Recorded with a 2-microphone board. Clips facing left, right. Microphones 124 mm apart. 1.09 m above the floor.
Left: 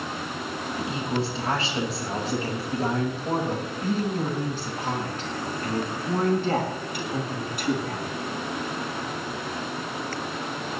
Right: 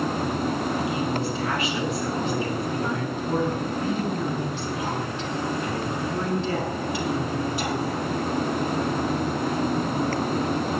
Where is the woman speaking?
30° left (ahead or behind), 5.5 m; by 8.1 s 55° left (ahead or behind), 8 m.